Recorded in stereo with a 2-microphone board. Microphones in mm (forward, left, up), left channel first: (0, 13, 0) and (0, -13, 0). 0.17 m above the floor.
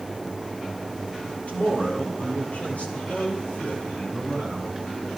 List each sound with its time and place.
1.5 s a man speaking: 65° left (ahead or behind), 5 m